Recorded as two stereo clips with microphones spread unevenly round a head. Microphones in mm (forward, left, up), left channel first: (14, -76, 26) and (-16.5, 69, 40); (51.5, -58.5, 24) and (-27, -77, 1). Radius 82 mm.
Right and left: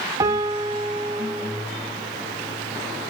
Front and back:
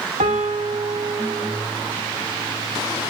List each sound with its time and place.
0.2 s a piano: 170° left, 1.0 m